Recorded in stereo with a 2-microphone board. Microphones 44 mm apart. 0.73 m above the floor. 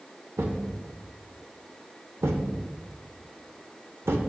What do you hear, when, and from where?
0.4 s a thud: 80° right, 0.9 m